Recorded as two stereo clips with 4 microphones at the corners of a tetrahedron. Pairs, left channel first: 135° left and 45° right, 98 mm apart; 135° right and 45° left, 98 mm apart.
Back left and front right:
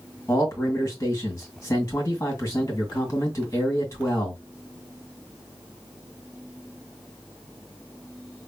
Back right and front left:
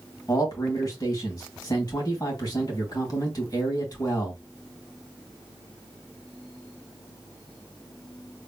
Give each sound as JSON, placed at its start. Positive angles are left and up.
{"t": 0.3, "sound": "a man speaking", "azimuth_deg": -175, "distance_m": 2.0}